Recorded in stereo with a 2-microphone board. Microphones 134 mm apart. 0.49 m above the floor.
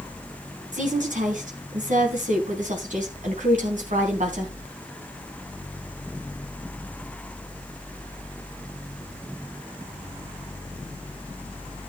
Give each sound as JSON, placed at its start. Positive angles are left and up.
{"t": 0.7, "sound": "a woman speaking", "side_deg": -70, "distance_m": 3.5}